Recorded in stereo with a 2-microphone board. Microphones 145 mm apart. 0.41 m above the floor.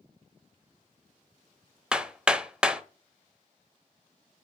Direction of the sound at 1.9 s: 5° right (ahead or behind).